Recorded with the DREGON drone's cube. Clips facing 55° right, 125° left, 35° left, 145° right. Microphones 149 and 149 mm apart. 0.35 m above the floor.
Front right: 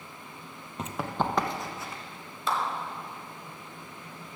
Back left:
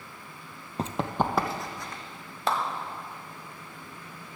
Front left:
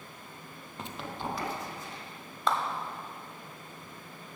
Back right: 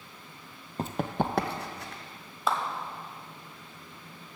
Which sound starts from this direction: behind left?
A clap, at 2.5 s.